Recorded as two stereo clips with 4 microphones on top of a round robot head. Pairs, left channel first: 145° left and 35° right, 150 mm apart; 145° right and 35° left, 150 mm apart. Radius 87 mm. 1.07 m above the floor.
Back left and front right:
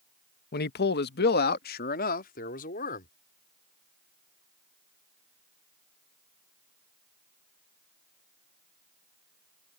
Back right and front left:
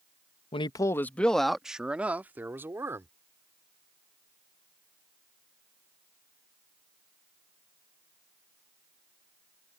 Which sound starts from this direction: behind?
A man speaking, at 0.5 s.